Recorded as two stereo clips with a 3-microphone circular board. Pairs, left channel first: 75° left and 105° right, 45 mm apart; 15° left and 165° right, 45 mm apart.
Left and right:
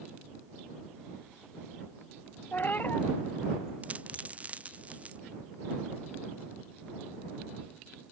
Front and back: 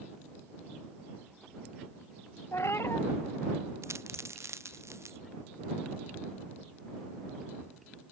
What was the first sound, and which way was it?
A cat meowing, 30° left.